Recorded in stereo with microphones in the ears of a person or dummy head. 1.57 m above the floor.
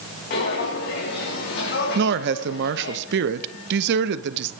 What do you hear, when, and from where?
0.3 s footsteps: 50° left (ahead or behind), 4 m; by 3.0 s 55° left (ahead or behind), 3 m
1.9 s a woman speaking: 70° right (ahead or behind), 0.7 m